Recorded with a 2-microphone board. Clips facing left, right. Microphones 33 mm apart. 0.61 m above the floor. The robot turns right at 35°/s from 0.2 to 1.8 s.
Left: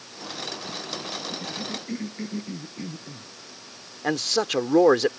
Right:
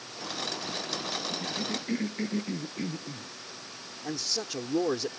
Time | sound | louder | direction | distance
1.3 | a cough | even | centre (ahead or behind) | ?
4.0 | a man speaking | left 10 dB | 65° left (ahead or behind) | ?